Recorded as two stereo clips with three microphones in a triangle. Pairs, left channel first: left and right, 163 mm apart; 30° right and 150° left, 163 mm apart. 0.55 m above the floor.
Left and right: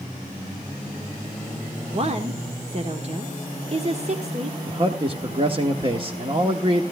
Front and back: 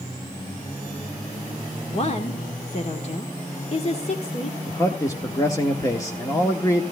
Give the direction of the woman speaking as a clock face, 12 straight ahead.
2 o'clock.